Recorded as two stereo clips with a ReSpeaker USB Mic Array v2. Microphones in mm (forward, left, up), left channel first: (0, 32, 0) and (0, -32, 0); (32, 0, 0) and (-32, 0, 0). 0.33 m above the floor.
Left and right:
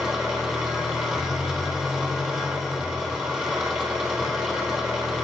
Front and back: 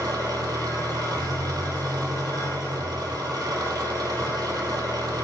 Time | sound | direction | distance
0.0 | an engine running | 170° right | 3 m